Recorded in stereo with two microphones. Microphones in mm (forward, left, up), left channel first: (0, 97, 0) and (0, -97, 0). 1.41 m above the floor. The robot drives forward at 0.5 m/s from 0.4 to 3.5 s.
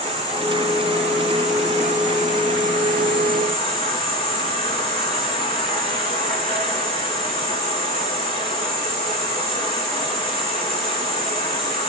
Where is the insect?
30° right (ahead or behind), 4.5 m; by 11.9 s 45° right (ahead or behind), 3 m.